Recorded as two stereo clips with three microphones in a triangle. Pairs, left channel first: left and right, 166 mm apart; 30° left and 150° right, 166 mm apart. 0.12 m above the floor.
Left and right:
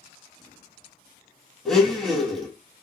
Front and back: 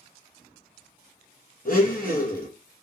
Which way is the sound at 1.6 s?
Straight ahead.